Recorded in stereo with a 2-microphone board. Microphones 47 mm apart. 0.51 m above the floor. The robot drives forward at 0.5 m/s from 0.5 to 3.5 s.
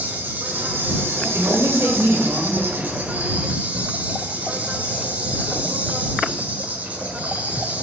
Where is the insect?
40° right (ahead or behind), 1.1 m; by 7.8 s 35° right (ahead or behind), 1.3 m.